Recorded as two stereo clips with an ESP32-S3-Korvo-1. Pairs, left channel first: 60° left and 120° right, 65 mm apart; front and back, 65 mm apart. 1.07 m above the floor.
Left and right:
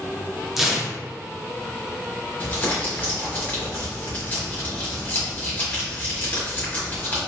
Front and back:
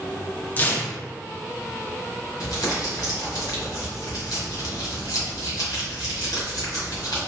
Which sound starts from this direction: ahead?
Crumpling, at 2.4 s.